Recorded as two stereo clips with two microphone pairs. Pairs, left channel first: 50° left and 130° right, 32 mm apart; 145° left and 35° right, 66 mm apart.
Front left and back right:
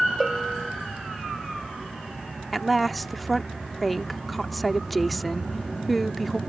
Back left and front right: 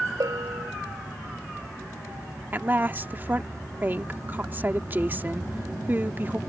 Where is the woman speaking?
40° right.